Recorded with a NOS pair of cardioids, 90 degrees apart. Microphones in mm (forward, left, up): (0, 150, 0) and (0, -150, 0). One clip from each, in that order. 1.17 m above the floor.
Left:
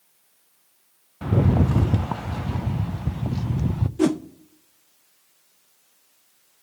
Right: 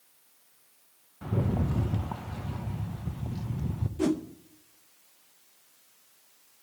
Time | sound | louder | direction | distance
1.2 | a rattle | left 9 dB | 40° left | 0.5 m
4.0 | a whoosh | left 6 dB | 30° left | 0.6 m